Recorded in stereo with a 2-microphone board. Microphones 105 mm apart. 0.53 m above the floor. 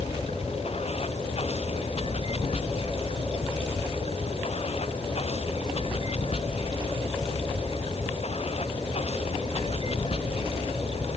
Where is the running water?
70° left (ahead or behind).